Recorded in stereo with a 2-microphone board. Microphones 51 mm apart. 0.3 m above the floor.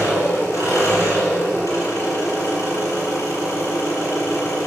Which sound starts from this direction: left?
An engine running, at 0.0 s.